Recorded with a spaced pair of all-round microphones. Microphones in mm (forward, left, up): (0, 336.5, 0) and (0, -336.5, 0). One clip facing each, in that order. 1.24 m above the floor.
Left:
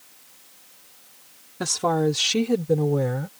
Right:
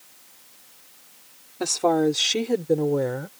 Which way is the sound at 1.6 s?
45° left (ahead or behind).